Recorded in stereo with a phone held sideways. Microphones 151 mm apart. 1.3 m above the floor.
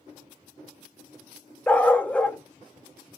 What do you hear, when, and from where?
1.7 s a dog barking: 10° left (ahead or behind), 0.7 m